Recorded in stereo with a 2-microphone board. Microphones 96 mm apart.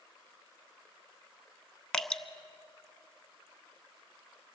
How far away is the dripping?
About 0.8 m.